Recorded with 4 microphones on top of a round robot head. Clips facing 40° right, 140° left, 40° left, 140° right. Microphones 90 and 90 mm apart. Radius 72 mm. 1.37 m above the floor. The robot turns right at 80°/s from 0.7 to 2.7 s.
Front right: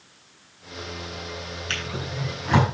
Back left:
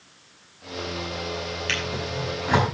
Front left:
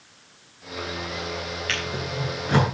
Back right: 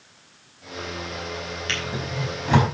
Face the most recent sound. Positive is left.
turn(degrees=-120)